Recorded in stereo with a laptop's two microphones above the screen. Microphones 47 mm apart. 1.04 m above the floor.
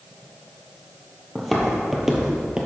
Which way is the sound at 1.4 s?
5° left (ahead or behind).